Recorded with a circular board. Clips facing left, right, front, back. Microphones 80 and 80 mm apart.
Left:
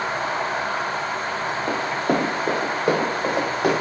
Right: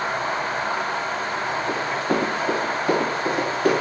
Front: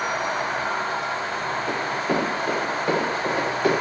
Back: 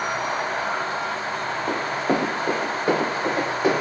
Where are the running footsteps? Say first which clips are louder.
Left 3 dB, back 3 dB; 125° left, 1.6 m; by 3.7 s 110° left, 2.5 m.